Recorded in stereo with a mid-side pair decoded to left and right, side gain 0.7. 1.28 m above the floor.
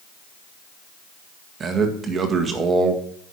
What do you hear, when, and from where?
1.6 s a man speaking: 30° right, 1.7 m